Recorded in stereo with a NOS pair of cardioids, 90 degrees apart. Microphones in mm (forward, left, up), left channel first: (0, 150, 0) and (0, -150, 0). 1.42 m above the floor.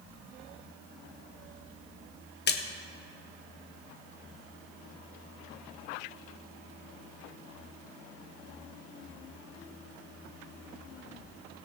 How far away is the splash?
About 1.3 m.